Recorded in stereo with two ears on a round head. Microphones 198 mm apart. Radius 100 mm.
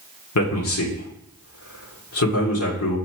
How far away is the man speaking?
About 2.5 m.